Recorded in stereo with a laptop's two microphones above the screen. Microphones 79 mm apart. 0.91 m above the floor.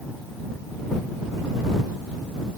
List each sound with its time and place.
Only background noise.